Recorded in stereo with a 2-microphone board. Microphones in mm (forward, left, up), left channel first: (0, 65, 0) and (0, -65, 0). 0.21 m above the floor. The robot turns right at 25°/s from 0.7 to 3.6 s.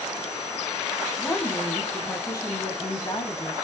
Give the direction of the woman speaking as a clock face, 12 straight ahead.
11 o'clock.